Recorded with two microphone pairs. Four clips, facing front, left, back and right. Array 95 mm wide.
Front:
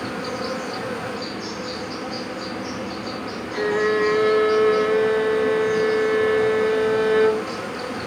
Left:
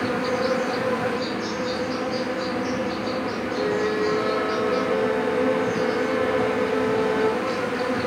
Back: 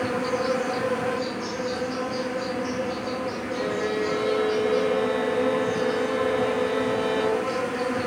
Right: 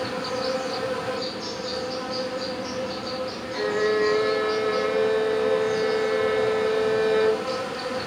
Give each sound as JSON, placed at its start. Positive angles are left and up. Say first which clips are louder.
{"t": 0.0, "sound": "an insect", "louder": "left 4 dB, back 3 dB", "azimuth_deg": 105, "distance_m": 6.5}
{"t": 3.5, "sound": "a violin", "louder": "right 2 dB, front 7 dB", "azimuth_deg": 10, "distance_m": 3.0}